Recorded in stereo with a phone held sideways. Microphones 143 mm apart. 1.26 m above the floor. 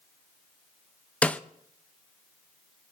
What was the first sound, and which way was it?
A snare drum, 10° left (ahead or behind).